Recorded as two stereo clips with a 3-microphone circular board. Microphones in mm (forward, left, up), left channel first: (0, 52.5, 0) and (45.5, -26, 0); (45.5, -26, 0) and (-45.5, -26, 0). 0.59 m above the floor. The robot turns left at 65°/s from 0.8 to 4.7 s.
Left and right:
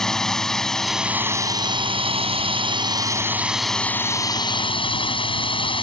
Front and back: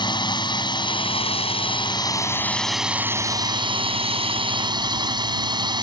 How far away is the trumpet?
No trumpet in this recording.